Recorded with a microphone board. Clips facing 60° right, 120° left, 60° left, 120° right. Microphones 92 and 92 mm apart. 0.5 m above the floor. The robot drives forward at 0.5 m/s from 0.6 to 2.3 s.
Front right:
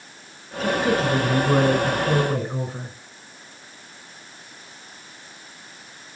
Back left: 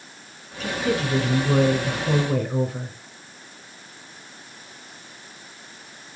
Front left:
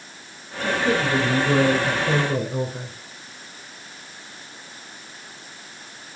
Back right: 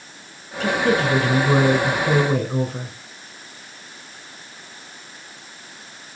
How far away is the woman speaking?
About 4 m.